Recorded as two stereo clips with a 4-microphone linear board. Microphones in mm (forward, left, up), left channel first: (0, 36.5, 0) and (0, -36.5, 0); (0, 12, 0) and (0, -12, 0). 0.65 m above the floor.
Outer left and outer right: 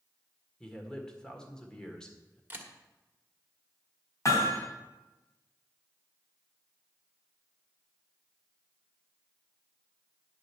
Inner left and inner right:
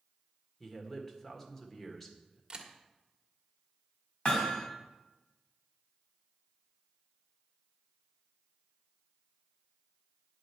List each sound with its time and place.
0.6 s a man speaking: 10° left (ahead or behind), 1.7 m
2.5 s a camera shutter: 30° right (ahead or behind), 1.4 m
4.2 s hammering: 45° left (ahead or behind), 2.5 m